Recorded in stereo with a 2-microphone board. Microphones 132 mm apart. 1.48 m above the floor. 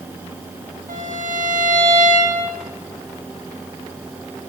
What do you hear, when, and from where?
0.9 s a violin: 85° right, 6 m